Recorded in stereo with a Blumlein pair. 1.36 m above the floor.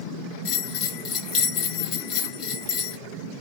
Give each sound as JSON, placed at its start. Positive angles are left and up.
{"t": 0.5, "sound": "a bell", "azimuth_deg": 30, "distance_m": 1.2}